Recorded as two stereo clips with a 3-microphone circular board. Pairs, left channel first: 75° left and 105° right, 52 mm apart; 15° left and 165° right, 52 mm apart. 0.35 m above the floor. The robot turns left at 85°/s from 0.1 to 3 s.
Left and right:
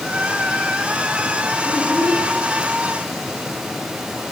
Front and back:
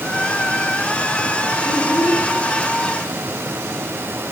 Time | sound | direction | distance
1.6 | a child speaking | 20° left | 10 m